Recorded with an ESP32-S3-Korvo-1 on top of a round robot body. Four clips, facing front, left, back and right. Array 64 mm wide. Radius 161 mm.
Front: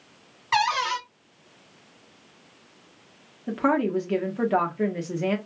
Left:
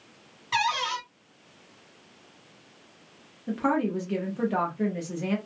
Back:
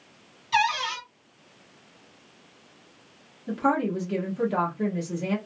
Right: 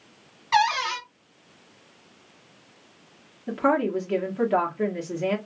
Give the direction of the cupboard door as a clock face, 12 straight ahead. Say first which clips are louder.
Right 5 dB, front 1 dB; 1 o'clock.